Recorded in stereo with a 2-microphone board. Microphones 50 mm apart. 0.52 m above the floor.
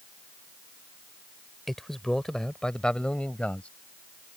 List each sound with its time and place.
1.7 s a man speaking: 5° left (ahead or behind); by 3.7 s 25° left (ahead or behind)